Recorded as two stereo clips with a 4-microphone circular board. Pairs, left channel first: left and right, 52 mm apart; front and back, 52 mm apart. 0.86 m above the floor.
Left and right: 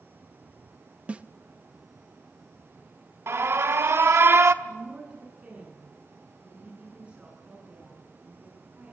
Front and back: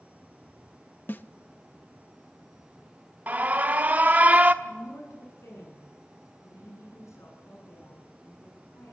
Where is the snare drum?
35° right, 0.8 m.